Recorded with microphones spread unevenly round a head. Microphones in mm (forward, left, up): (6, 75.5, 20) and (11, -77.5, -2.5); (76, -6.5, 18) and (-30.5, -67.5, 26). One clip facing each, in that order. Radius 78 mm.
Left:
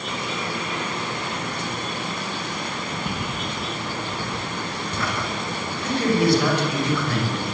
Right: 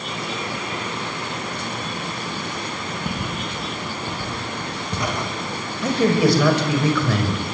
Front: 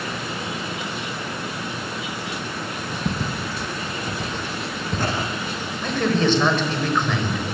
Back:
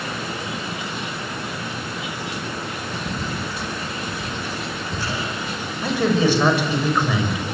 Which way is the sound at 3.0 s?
Straight ahead.